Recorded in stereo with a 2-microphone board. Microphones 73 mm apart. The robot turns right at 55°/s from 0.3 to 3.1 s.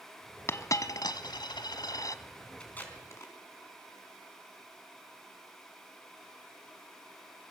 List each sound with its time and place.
0.5 s a dropped coin: 35° left (ahead or behind), 1.0 m; by 2.2 s 45° left (ahead or behind), 1.0 m
2.6 s tape being pulled: 10° left (ahead or behind), 3.5 m; by 3.3 s 40° left (ahead or behind), 3.5 m